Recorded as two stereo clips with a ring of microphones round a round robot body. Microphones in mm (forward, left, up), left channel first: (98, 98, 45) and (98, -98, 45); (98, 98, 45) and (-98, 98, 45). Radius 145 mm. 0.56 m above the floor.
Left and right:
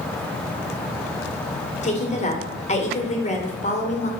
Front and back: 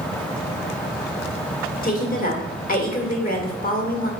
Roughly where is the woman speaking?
Ahead left.